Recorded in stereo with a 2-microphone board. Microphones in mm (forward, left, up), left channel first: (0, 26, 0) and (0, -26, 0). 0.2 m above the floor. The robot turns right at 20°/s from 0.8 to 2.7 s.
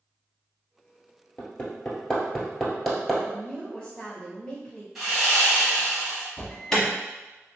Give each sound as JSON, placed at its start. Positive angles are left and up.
{"t": 1.4, "sound": "hammering", "side_deg": 25, "distance_m": 1.3}
{"t": 3.2, "sound": "a woman speaking", "side_deg": 15, "distance_m": 1.3}
{"t": 5.0, "sound": "sawing", "side_deg": -5, "distance_m": 1.5}
{"t": 6.4, "sound": "an alarm", "side_deg": 10, "distance_m": 1.2}